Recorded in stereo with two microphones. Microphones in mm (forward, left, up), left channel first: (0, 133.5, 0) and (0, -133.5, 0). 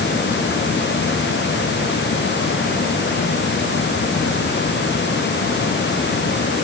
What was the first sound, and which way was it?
Only background noise.